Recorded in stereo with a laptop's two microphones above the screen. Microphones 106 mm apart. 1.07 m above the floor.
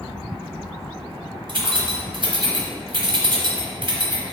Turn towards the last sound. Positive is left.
turn(degrees=-50)  # may be behind; listen again after turning